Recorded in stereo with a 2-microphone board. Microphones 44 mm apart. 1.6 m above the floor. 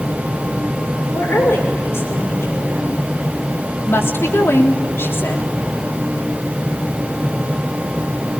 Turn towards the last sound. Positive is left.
turn(degrees=65)  # may be behind; listen again after turning